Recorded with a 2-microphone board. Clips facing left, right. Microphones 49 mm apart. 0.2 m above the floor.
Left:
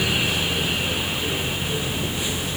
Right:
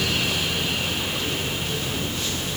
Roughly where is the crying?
No crying in this recording.